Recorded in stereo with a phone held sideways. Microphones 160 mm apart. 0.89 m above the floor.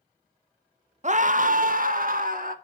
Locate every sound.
1.0 s a scream: 50° right (ahead or behind), 0.8 m; by 2.5 s 60° right (ahead or behind), 1.7 m